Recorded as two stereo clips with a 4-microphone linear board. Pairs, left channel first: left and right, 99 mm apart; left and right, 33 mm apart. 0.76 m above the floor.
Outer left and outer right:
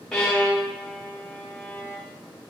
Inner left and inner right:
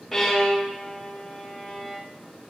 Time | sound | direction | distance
0.1 | a violin | 10° left (ahead or behind) | 2.5 m